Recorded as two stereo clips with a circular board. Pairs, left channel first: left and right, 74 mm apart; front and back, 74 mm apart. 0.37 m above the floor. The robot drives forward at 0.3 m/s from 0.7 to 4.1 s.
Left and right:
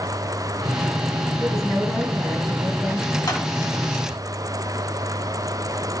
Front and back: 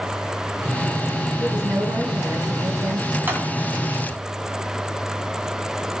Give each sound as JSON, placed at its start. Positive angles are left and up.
{"t": 1.4, "sound": "a woman speaking", "azimuth_deg": 175, "distance_m": 3.5}
{"t": 3.3, "sound": "a clap", "azimuth_deg": 120, "distance_m": 1.9}